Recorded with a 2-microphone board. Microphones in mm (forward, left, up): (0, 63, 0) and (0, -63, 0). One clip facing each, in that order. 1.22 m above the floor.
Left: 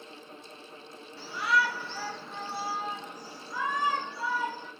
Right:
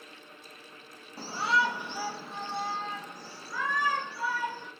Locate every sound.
1.2 s a shout: 40° right (ahead or behind), 0.9 m; by 4.7 s 25° left (ahead or behind), 2 m